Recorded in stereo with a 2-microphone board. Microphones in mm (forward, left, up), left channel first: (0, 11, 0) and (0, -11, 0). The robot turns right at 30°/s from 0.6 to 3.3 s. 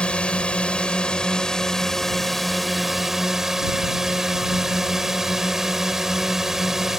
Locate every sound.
0.0 s a drone: 115° left; by 7.0 s 160° right